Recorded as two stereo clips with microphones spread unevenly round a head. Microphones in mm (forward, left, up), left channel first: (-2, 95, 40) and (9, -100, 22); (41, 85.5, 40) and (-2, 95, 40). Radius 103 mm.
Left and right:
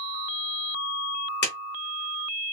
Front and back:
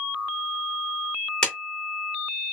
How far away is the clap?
About 2.5 m.